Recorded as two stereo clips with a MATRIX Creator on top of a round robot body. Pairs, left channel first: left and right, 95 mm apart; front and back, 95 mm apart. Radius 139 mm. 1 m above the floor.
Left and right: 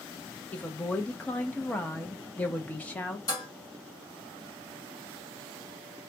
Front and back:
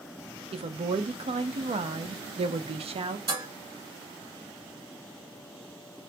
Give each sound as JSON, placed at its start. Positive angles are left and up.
{"t": 0.5, "sound": "a woman speaking", "azimuth_deg": 165, "distance_m": 0.7}
{"t": 3.3, "sound": "dishes clattering", "azimuth_deg": 140, "distance_m": 1.9}